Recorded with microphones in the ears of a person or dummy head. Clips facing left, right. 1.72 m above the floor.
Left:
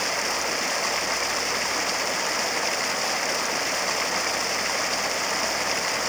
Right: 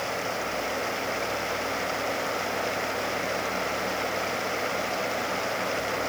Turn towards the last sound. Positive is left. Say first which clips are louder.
# left 1 dB
turn(degrees=65)  # may be behind; listen again after turning